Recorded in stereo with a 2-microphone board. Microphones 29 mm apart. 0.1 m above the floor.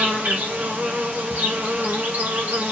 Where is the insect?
80° right, 4 m.